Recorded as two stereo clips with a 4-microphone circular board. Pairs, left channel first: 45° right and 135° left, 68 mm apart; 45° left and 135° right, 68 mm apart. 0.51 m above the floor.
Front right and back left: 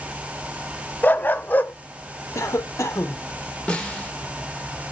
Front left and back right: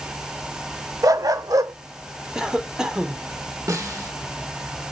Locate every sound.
1.0 s a dog barking: 105° right, 0.6 m
2.4 s a cough: 55° right, 1.0 m
3.7 s a snare drum: 115° right, 1.4 m